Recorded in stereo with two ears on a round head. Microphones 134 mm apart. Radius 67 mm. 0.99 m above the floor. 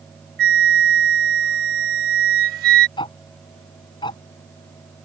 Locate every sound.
0.4 s a flute: 75° right (ahead or behind)
3.0 s ticking: 35° left (ahead or behind)